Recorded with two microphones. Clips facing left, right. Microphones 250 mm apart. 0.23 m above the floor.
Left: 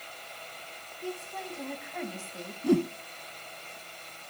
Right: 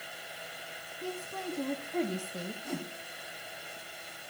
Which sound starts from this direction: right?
A woman speaking, at 1.0 s.